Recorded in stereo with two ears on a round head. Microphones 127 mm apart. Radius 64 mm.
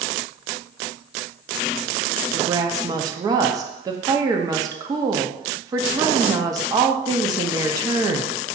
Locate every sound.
2.3 s a woman speaking: 25° right (ahead or behind), 0.6 m